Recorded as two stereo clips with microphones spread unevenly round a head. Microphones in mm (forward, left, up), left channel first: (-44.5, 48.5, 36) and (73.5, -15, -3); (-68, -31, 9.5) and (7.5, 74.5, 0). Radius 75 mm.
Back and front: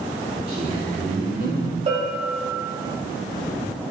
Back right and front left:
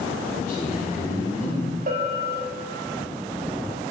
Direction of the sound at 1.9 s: 10° left.